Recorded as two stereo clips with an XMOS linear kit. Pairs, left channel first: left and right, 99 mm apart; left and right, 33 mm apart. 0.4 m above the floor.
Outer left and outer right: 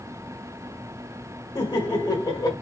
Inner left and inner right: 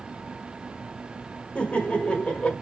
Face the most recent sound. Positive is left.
turn(degrees=45)  # may be behind; listen again after turning